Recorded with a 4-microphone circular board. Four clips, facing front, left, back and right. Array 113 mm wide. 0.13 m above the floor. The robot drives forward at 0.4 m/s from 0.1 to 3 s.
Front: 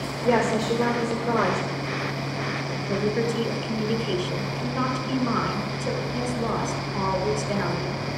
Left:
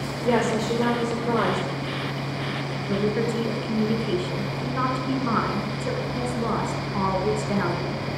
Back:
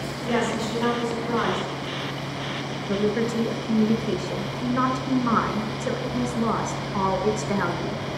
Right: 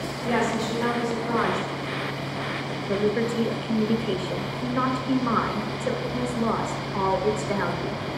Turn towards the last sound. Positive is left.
turn(degrees=175)